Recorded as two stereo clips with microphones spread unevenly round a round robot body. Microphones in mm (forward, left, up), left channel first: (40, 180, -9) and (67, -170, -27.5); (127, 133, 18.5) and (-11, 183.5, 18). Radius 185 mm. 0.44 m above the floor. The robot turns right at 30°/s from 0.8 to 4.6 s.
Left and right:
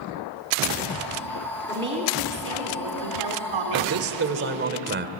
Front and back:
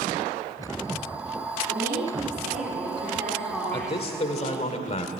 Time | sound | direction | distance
1.7 | a woman speaking | 165° right | 3.5 m
3.7 | a man speaking | 70° right | 1.5 m